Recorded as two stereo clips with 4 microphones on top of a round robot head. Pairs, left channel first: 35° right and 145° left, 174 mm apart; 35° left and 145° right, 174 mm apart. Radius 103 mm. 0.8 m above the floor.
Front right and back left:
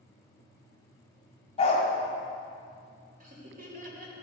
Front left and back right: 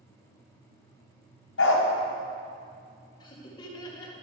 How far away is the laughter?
About 2 m.